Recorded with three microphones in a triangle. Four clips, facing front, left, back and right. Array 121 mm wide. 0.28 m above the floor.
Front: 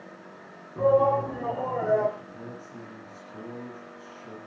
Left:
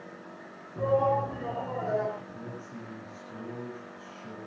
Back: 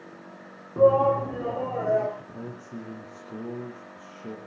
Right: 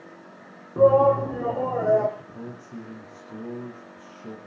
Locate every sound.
0.8 s a shout: 115° right, 3 m; by 2.1 s 100° right, 4.5 m
2.2 s a man speaking: 150° right, 6.5 m